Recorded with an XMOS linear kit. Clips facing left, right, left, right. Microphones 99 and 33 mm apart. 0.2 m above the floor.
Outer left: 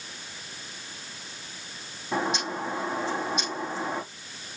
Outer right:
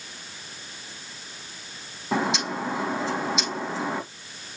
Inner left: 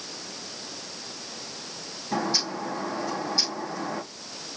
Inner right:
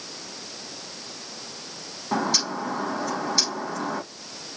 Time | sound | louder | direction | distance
2.1 | a bird | outer right 3 dB, inner right 2 dB | 80° right | 5 m